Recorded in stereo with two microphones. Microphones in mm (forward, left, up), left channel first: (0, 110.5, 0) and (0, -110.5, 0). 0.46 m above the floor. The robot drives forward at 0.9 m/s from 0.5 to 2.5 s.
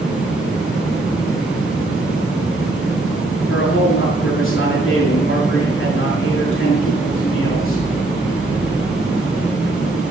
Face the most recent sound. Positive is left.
turn(degrees=65)  # may be behind; listen again after turning